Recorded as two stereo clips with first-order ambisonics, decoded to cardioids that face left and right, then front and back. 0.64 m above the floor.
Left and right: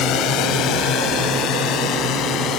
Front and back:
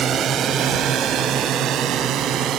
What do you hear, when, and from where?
0.0 s a drone: 125° left; by 2.6 s 135° left